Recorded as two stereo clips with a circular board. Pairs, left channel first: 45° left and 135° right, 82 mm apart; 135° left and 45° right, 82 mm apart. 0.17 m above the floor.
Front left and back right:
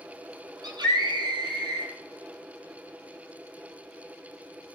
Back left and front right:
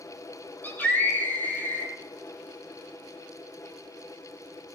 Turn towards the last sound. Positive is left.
turn(degrees=-160)